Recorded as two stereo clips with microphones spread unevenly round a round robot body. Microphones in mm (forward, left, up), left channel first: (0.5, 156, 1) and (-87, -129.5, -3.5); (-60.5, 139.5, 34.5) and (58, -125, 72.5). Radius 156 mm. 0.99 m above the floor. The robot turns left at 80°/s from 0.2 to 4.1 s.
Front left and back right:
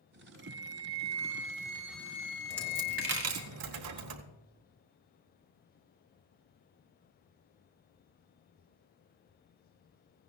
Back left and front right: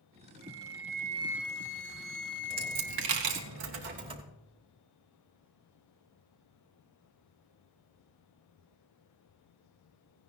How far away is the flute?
About 1.1 m.